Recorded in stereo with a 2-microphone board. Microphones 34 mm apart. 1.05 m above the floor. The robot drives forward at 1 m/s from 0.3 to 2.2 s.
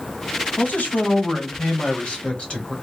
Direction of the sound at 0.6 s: 70° left (ahead or behind).